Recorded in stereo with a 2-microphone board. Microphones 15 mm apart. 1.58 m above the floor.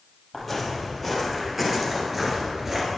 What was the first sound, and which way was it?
Footsteps, 10° left (ahead or behind).